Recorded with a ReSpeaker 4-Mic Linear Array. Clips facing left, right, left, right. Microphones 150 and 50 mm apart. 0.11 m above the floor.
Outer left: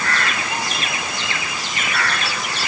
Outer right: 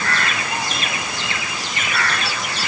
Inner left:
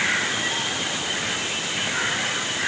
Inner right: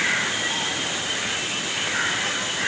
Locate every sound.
Only background noise.